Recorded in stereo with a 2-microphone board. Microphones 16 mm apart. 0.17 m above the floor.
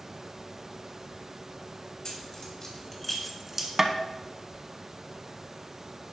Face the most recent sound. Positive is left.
turn(degrees=-25)  # may be behind; listen again after turning